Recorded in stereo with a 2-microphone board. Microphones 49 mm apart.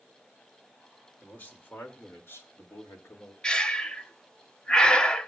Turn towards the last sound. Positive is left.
turn(degrees=20)  # may be behind; listen again after turning